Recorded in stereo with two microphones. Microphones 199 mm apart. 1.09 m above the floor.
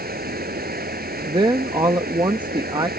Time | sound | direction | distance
0.0 | running water | 50° right (ahead or behind) | ?
1.3 | a woman speaking | 20° right (ahead or behind) | ?